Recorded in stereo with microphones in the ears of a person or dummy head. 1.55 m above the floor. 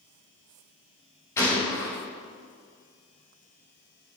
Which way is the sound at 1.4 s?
15° left (ahead or behind).